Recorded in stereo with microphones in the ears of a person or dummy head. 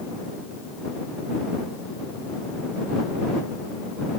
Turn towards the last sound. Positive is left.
No sound to turn to.